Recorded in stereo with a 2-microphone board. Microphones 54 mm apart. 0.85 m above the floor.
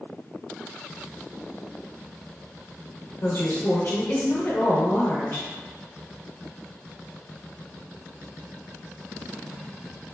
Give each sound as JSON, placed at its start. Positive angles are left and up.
{"t": 3.2, "sound": "a woman speaking", "side_deg": 35, "distance_m": 0.6}